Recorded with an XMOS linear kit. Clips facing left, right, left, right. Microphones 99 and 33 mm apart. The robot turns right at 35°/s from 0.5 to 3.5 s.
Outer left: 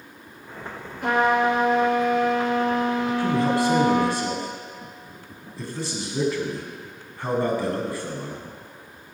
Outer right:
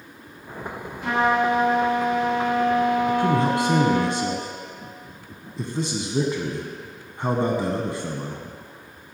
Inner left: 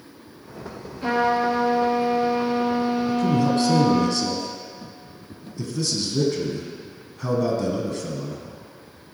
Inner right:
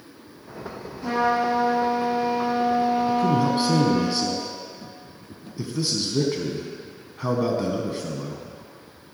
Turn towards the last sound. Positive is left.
turn(degrees=-20)  # may be behind; listen again after turning